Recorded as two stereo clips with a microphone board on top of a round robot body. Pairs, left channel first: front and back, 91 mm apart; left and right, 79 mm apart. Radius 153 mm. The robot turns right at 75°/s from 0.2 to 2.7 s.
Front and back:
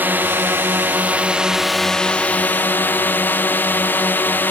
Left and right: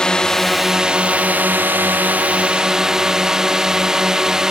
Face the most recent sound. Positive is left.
turn(degrees=-15)